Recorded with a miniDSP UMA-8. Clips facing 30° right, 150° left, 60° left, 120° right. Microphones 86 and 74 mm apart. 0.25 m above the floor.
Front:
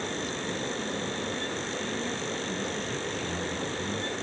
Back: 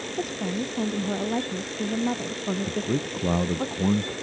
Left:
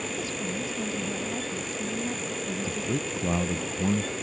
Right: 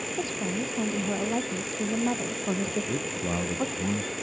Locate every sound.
0.2 s a woman speaking: straight behind; by 3.7 s 160° right
2.7 s a man speaking: 140° left